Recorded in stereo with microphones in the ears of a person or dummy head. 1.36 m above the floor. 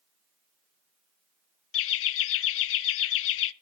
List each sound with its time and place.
1.7 s laughter: 80° left, 0.7 m